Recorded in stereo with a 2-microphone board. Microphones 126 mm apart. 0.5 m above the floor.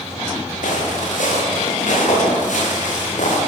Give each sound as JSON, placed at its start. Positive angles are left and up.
{"t": 0.6, "sound": "footsteps", "side_deg": 85, "distance_m": 9.0}